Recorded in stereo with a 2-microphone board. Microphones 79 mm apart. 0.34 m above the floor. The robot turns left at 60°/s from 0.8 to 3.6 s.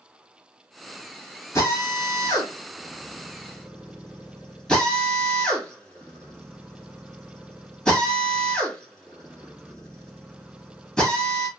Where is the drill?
40° left (ahead or behind), 2.5 m; by 11.5 s 10° left (ahead or behind), 2.5 m.